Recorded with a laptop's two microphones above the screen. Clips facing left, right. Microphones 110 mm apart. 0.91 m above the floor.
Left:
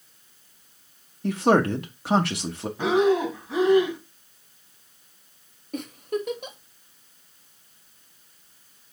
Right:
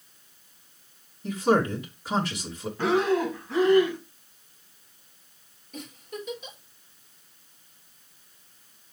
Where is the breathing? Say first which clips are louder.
Left 3 dB; 15° left (ahead or behind), 2.0 m.